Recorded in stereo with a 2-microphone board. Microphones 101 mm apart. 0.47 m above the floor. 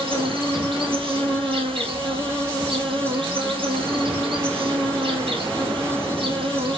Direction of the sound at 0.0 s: 60° right (ahead or behind).